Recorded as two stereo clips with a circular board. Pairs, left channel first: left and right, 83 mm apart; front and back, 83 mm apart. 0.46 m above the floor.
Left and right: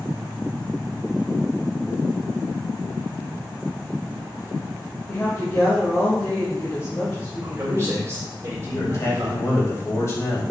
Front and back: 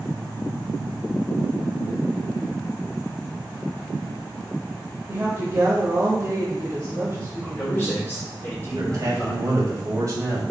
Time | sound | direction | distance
5.1 | a woman speaking | 135° left | 1.5 m
7.4 | a man speaking | 55° right | 1.9 m
8.7 | a man speaking | 140° left | 2.5 m